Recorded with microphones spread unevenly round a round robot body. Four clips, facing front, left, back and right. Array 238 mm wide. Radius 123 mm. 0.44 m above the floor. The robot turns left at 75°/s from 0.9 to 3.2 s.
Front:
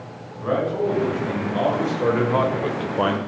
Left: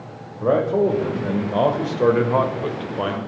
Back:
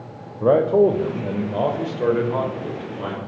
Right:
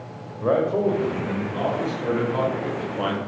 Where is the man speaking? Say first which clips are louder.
Left 2 dB, back 7 dB; 170° left, 1.8 m; by 3.2 s straight ahead, 1.8 m.